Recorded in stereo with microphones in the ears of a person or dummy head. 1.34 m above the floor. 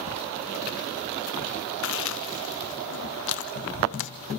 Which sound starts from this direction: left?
Chewing, at 1.8 s.